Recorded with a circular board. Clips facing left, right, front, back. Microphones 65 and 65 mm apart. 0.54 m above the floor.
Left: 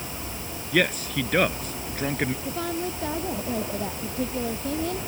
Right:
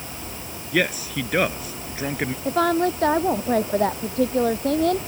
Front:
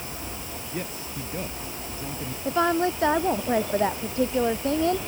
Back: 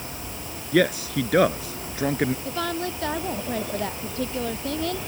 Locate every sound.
0.7 s a man speaking: 175° right
2.5 s a woman speaking: 65° right